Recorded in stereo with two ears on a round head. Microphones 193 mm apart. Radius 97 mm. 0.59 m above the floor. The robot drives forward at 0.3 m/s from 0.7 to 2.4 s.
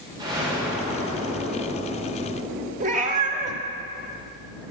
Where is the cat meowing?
35° right (ahead or behind), 0.8 m.